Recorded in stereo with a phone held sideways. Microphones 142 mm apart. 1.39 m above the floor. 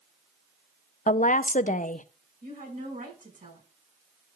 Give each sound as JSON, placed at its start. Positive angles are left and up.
{"t": 1.1, "sound": "a woman speaking", "side_deg": 65, "distance_m": 0.6}
{"t": 2.4, "sound": "a woman speaking", "side_deg": -85, "distance_m": 5.5}